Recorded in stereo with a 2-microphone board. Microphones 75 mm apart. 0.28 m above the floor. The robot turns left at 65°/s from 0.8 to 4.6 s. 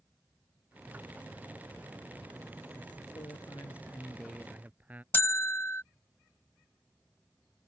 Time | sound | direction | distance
3.1 | a man speaking | 75° left | ?
5.1 | a bell | 30° left (ahead or behind) | ?